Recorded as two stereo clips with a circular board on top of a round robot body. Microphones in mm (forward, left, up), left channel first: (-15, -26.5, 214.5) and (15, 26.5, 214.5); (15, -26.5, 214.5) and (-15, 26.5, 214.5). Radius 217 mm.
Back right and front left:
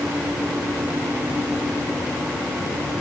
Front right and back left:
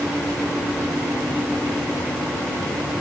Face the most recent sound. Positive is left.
No sound to turn to.